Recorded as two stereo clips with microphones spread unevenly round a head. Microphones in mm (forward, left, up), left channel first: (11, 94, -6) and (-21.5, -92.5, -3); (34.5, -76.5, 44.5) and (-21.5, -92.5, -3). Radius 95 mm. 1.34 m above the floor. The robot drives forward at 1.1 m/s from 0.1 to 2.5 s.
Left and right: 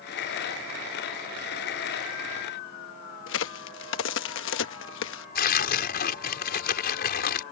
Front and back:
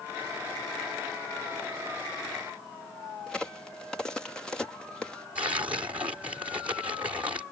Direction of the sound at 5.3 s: 120° left.